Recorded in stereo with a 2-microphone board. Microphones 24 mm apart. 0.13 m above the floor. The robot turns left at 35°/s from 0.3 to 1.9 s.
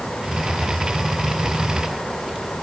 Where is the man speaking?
I don't hear a man speaking.